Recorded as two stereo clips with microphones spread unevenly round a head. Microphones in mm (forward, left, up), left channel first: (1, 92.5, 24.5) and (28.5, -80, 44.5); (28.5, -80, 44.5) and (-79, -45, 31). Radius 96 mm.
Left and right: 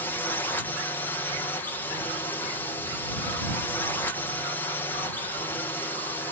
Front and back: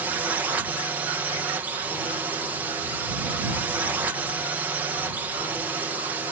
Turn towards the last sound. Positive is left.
turn(degrees=140)